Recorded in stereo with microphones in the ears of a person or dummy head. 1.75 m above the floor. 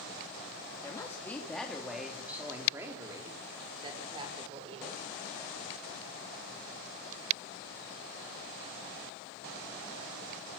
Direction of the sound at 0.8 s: 20° left (ahead or behind).